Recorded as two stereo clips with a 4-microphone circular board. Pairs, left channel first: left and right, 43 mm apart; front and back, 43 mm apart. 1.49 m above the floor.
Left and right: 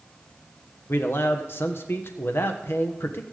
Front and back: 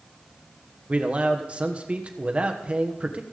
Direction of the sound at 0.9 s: 120° left.